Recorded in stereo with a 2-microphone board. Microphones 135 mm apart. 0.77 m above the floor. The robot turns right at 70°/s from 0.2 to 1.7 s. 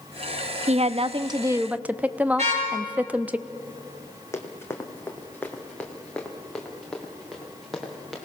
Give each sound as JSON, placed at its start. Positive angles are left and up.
{"t": 0.7, "sound": "a woman speaking", "azimuth_deg": -85, "distance_m": 0.6}
{"t": 2.4, "sound": "a car horn", "side_deg": -60, "distance_m": 6.0}
{"t": 4.3, "sound": "running footsteps", "side_deg": 20, "distance_m": 1.8}